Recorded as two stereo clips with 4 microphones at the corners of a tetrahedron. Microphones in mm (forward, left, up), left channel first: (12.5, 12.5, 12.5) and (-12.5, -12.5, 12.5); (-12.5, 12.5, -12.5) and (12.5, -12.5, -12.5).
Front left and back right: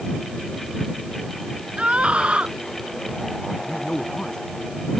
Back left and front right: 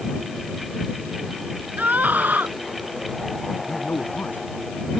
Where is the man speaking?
110° left.